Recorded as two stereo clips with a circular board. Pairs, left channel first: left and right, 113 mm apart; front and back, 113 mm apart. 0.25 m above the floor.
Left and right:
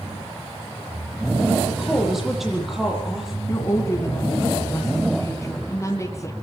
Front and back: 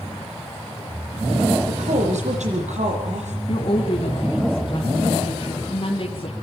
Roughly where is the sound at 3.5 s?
Ahead left.